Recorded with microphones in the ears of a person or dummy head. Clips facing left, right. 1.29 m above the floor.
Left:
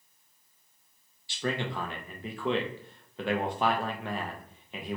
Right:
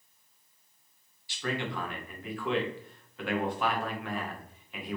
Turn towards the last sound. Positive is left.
turn(degrees=30)  # may be behind; listen again after turning